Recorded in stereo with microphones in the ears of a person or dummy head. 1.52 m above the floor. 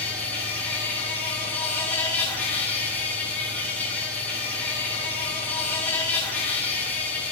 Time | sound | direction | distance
0.0 | an insect | 10° left (ahead or behind) | 1.2 m